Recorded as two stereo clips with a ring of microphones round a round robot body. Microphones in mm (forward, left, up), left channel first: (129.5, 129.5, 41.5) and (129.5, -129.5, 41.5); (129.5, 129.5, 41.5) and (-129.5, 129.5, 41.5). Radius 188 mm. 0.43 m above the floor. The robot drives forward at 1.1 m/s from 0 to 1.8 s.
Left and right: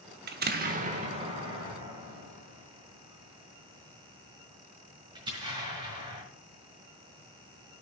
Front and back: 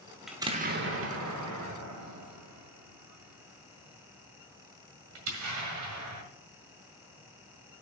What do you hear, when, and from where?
0.3 s an explosion: 90° right, 0.7 m; by 6.2 s 165° right, 1.8 m